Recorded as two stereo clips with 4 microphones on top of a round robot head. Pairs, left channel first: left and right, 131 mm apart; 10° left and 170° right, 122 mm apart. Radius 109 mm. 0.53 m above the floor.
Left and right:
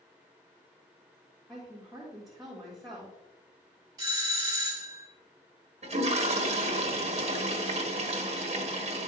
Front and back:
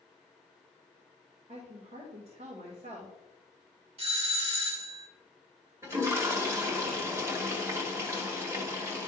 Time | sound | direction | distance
1.5 | a woman speaking | straight behind | 1.8 m
4.0 | a doorbell | 145° right | 2.0 m
5.8 | a toilet flushing | 105° right | 1.4 m